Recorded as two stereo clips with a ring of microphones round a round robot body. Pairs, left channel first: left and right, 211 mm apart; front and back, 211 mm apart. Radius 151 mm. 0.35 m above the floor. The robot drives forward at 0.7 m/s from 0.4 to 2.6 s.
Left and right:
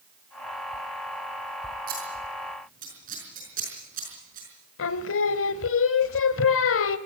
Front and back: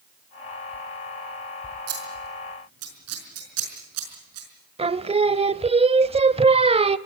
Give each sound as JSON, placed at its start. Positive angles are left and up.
{"t": 1.9, "sound": "scissors", "azimuth_deg": -150, "distance_m": 4.5}
{"t": 4.8, "sound": "singing", "azimuth_deg": 115, "distance_m": 0.8}